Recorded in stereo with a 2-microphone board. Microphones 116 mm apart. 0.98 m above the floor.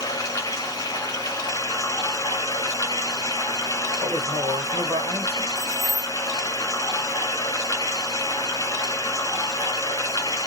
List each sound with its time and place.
0.0 s running water: 30° left (ahead or behind), 1.0 m
4.0 s a man speaking: 65° right (ahead or behind), 2.5 m
5.6 s keys jangling: 25° right (ahead or behind), 1.3 m